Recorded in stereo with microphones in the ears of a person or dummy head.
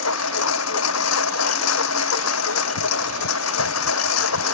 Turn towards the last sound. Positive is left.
turn(degrees=80)